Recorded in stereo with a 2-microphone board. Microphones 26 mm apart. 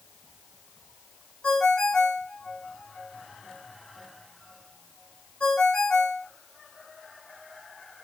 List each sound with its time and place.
1.4 s a ringtone: 50° left (ahead or behind), 2 m